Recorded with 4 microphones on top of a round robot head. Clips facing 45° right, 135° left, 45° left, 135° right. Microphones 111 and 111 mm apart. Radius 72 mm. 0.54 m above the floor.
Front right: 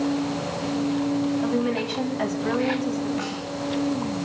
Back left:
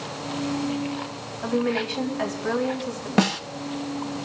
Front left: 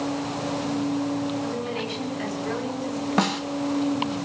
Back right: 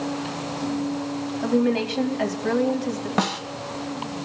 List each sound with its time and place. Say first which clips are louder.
1.4 s a woman speaking: front right 1 dB, back right 8 dB; 125° right, 4 m
3.2 s a snare drum: back left 8 dB, front left 1 dB; 135° left, 1.1 m